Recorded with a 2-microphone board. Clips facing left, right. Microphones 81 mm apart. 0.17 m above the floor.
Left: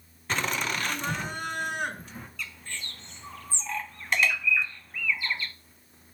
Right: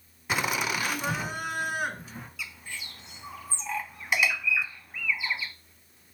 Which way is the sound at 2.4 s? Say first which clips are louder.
Left 2 dB; 10° right (ahead or behind).